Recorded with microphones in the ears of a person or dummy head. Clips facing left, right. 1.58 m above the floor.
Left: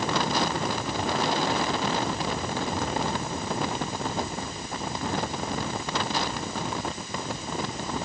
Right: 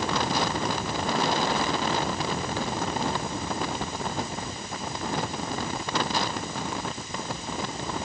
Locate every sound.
Only background noise.